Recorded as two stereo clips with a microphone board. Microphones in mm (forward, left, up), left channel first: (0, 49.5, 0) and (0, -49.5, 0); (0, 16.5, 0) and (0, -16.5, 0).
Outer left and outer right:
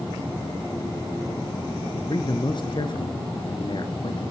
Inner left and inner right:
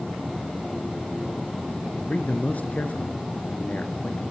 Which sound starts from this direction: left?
A man speaking, at 1.9 s.